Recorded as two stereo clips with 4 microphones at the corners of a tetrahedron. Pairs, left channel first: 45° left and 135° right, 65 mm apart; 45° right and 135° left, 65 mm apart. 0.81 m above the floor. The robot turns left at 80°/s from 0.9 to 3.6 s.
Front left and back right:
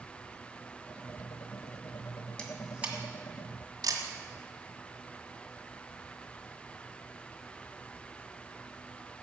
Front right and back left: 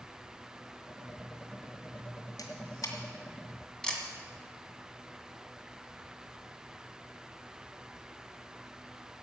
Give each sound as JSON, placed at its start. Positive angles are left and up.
{"t": 2.4, "sound": "a camera shutter", "azimuth_deg": -30, "distance_m": 1.9}